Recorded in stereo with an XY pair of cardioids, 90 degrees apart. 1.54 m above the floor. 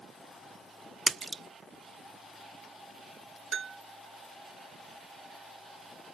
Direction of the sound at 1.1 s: 40° right.